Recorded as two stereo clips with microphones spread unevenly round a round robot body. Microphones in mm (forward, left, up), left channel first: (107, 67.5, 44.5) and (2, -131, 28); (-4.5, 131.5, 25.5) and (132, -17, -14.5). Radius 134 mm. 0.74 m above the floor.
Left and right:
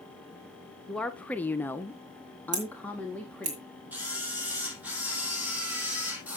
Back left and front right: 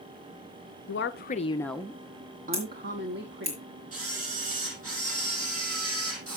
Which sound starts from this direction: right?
Scissors, at 2.5 s.